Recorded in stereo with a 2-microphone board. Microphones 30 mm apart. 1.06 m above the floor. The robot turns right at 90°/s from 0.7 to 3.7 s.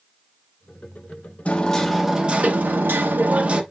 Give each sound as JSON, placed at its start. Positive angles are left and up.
{"t": 1.4, "sound": "hammering", "azimuth_deg": 135, "distance_m": 0.9}